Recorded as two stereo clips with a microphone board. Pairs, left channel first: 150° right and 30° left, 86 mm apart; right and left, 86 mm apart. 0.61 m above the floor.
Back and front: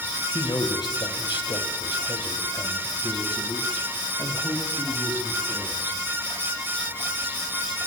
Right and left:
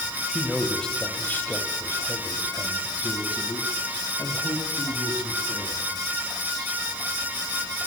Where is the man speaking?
Straight behind, 3 m; by 5.9 s 95° right, 5 m.